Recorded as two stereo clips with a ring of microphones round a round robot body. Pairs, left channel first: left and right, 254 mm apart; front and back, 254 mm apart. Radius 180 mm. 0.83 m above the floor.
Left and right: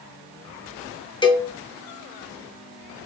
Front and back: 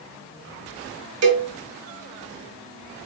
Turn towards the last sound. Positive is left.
turn(degrees=165)